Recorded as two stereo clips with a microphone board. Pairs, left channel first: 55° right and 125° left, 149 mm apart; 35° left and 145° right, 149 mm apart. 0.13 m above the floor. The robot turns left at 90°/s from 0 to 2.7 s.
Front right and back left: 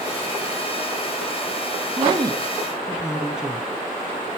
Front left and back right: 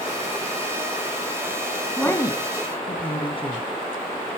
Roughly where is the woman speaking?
Left.